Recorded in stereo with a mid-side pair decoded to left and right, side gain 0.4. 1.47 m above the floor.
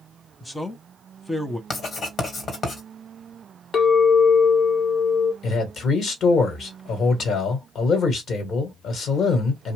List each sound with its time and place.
0.4 s a man speaking: 15° left, 0.8 m
1.7 s writing: 55° left, 1.4 m
3.7 s a clink: 60° left, 1.1 m
5.4 s a man speaking: 65° left, 1.3 m